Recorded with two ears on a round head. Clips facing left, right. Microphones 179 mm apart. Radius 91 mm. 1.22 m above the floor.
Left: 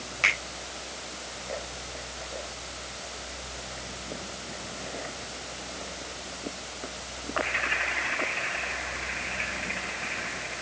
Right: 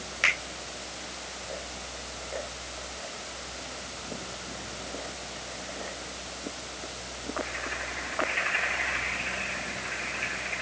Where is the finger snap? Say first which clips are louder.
Left 1 dB; 10° right (ahead or behind), 4 m.